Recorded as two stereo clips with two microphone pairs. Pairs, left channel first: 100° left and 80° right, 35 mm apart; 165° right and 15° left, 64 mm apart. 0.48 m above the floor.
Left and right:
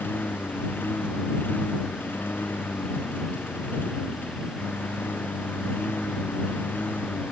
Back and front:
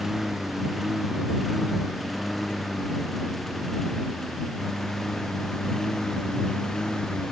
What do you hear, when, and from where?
0.0 s a lawn mower: 100° left; by 7.3 s 115° left